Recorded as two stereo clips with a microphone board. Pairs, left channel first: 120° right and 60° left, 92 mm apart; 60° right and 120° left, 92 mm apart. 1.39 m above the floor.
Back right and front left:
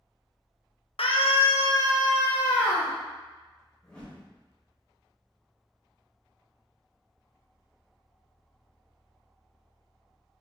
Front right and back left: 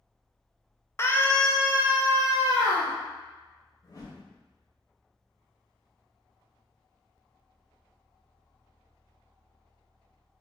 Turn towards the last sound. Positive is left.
turn(degrees=-50)